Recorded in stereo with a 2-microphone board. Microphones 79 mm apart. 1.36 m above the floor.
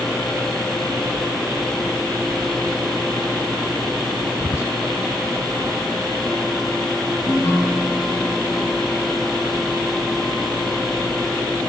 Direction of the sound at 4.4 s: 30° left (ahead or behind).